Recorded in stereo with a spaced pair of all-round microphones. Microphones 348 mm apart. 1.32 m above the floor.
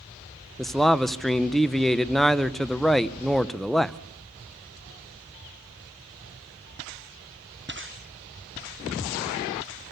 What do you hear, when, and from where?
0.6 s a man speaking: centre (ahead or behind), 0.6 m